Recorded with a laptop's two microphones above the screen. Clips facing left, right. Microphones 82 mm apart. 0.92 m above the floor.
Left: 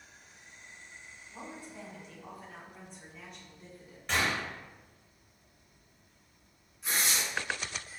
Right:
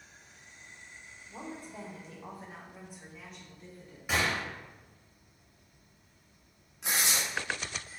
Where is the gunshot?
10° right (ahead or behind), 0.9 m.